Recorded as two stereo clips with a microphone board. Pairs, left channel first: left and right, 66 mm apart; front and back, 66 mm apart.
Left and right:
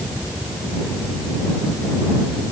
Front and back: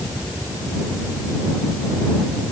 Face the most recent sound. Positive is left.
No sound to turn to.